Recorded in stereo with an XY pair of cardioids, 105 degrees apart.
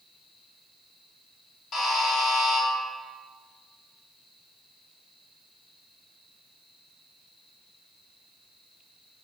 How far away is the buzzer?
About 2.0 m.